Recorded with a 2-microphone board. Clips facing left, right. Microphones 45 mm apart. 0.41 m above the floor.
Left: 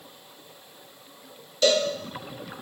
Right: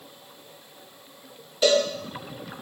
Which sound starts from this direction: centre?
A cowbell, at 1.6 s.